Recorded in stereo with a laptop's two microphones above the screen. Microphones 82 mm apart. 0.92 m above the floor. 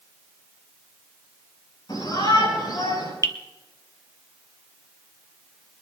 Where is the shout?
50° left (ahead or behind), 8 m; by 3.1 s 55° left (ahead or behind), 8 m.